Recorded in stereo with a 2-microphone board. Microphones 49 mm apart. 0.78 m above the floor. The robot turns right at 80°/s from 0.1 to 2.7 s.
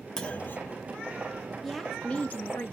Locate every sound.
0.2 s a clunk: 15° left, 0.6 m; by 0.8 s 70° left, 0.6 m
1.6 s a woman speaking: 5° right, 0.5 m; by 2.7 s 80° left, 0.5 m